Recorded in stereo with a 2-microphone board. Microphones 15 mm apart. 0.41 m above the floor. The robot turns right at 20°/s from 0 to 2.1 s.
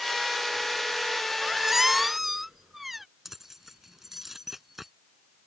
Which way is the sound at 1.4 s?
20° right (ahead or behind).